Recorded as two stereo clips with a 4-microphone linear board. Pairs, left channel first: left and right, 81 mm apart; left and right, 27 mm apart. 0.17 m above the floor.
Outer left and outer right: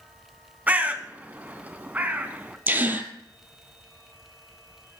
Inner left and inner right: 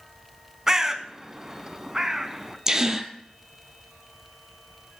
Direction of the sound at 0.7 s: 20° right (ahead or behind).